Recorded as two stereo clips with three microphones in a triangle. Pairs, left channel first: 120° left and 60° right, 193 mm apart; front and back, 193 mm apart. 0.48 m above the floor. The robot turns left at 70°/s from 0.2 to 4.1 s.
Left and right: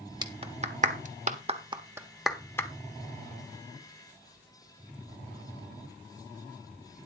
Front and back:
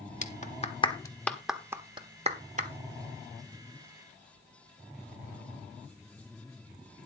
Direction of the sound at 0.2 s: 5° right.